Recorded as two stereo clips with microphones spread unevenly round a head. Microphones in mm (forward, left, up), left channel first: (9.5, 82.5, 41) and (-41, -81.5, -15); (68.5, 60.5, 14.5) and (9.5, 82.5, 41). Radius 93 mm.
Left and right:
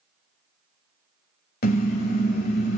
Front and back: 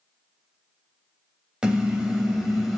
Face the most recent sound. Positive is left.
turn(degrees=85)